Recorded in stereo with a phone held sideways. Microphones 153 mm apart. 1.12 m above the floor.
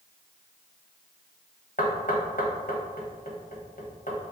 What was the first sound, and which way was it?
Knocking, 65° left (ahead or behind).